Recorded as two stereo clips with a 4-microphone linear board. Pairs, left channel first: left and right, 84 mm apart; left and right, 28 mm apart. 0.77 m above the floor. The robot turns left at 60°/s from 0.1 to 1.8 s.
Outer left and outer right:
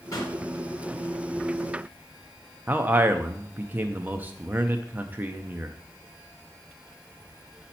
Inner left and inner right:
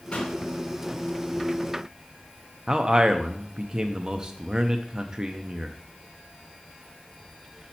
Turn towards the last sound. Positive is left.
turn(degrees=-25)  # may be behind; listen again after turning